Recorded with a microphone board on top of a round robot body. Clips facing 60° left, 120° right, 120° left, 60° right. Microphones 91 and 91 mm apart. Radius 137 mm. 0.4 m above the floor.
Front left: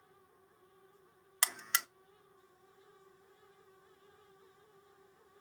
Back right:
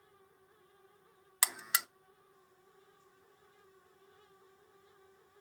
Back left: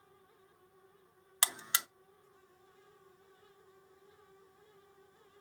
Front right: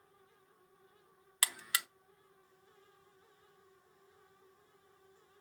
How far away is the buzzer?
About 0.6 m.